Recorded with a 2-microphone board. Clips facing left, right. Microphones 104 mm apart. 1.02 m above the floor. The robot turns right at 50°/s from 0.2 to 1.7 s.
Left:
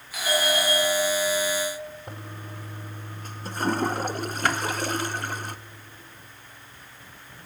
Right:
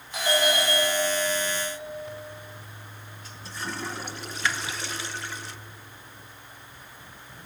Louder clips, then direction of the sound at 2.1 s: Right 1 dB; 50° left (ahead or behind).